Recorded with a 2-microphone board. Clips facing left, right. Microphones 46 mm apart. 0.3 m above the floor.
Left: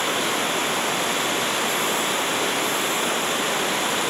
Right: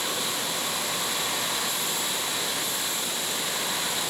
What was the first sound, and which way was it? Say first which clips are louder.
Running water: left 7 dB; 50° left (ahead or behind).